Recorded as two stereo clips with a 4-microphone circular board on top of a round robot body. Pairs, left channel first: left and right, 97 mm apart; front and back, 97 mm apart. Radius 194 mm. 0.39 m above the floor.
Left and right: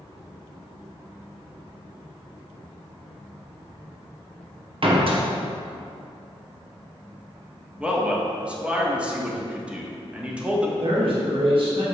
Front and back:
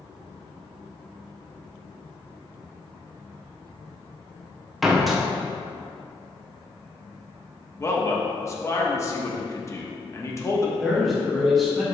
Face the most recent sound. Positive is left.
turn(degrees=-90)